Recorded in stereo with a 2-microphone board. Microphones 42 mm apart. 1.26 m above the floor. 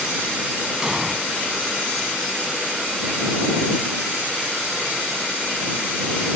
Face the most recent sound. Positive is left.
turn(degrees=-10)  # may be behind; listen again after turning